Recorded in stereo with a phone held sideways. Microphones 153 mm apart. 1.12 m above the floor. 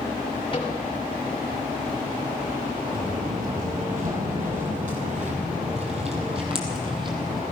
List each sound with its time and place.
0.5 s a microwave: 35° left (ahead or behind), 3 m
2.9 s footsteps: 65° right (ahead or behind), 2.5 m; by 7.4 s 30° right (ahead or behind), 3 m